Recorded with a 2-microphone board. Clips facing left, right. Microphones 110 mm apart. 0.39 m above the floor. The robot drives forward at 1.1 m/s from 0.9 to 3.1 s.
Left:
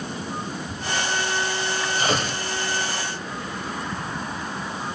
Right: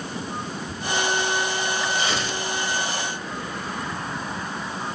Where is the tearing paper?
40° left (ahead or behind), 1.3 m; by 2.4 s 50° left (ahead or behind), 1.1 m.